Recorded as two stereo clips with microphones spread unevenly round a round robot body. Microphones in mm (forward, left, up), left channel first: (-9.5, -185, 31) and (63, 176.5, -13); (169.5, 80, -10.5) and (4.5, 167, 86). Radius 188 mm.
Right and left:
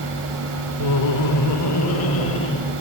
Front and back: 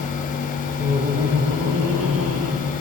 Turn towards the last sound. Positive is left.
turn(degrees=-165)